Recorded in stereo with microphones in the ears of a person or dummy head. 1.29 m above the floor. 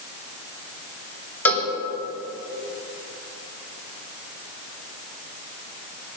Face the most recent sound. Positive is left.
turn(degrees=10)  # may be behind; listen again after turning